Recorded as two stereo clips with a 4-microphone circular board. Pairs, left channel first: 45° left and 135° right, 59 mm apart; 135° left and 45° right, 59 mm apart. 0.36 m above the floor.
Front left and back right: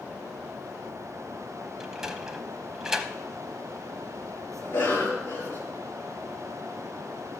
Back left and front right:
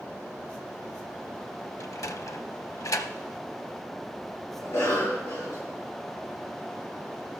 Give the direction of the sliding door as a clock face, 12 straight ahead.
7 o'clock.